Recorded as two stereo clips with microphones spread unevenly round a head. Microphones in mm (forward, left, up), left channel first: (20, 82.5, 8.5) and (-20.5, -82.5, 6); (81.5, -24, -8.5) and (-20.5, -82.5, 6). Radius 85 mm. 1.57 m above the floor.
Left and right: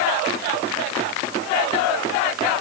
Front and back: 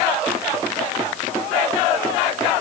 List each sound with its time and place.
Only background noise.